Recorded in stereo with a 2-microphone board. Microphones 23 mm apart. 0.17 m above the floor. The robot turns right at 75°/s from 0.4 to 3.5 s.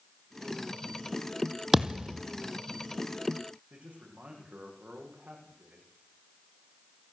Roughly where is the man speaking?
Right.